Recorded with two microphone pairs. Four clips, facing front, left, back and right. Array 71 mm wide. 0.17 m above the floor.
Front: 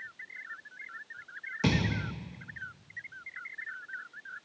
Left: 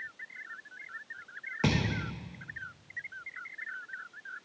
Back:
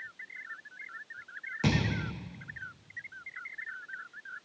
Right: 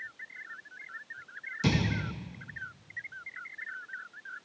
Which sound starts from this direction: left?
A thud, at 1.6 s.